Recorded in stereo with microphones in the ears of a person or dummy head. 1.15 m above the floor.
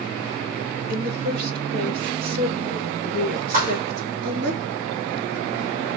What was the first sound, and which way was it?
A woman speaking, 55° right (ahead or behind).